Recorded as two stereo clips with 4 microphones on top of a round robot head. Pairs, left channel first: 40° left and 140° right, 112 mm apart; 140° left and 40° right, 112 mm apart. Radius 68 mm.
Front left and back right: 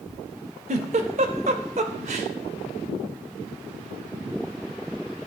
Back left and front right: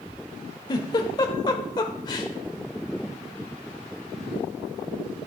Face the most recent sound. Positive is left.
turn(degrees=-165)